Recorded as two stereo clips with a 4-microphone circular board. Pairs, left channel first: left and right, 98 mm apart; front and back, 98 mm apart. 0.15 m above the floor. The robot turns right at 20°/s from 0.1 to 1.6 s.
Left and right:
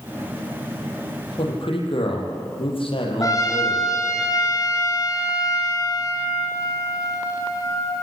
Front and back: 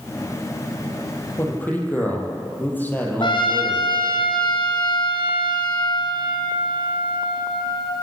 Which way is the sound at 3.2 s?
35° left.